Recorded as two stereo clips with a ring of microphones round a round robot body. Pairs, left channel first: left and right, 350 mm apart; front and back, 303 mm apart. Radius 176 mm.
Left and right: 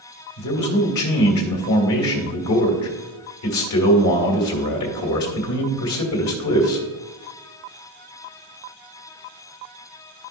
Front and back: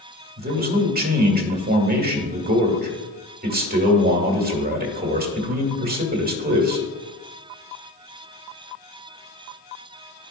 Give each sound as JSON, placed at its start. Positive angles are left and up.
{"t": 0.4, "sound": "a man speaking", "azimuth_deg": 125, "distance_m": 2.0}